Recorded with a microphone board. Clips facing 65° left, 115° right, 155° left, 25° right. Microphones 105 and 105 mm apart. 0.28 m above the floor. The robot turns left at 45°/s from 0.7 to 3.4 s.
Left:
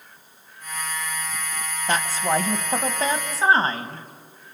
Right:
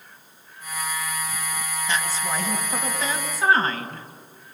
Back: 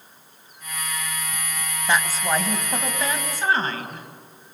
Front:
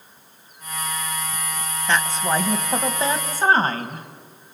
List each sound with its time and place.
1.9 s a woman speaking: 80° left, 1.5 m; by 4.1 s 15° left, 1.5 m